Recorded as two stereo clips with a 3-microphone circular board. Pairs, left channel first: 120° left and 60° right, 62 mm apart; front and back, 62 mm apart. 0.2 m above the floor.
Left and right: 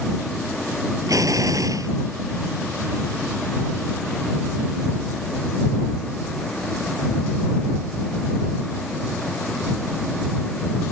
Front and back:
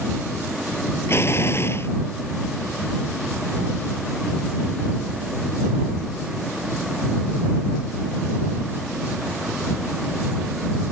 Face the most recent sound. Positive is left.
turn(degrees=-45)